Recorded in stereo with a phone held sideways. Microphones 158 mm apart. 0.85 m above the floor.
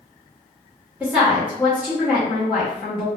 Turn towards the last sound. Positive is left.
turn(degrees=-10)  # may be behind; listen again after turning